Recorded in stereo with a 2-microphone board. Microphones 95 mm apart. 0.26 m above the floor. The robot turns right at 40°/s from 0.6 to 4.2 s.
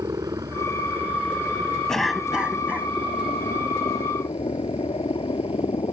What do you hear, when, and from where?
0.0 s a helicopter: 40° right (ahead or behind); by 5.9 s 60° left (ahead or behind)
1.9 s a cough: 175° left; by 2.9 s 145° right